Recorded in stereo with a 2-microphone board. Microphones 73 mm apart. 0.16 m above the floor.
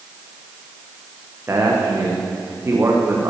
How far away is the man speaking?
About 10 m.